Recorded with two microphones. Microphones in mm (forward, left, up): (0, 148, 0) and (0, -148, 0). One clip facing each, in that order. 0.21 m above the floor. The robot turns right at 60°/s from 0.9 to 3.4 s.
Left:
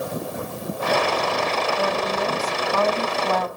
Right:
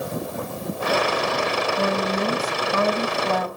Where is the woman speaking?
100° right, 1.2 m; by 3.5 s straight ahead, 1.2 m.